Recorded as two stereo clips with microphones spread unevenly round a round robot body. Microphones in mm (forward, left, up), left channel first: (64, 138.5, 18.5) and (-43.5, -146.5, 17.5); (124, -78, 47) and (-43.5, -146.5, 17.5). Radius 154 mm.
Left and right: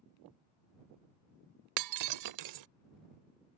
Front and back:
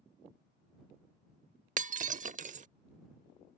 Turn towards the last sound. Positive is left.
turn(degrees=-110)